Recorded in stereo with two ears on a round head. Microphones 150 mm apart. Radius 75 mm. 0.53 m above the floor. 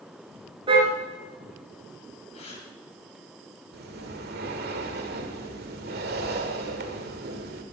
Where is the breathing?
60° right (ahead or behind), 1.6 m.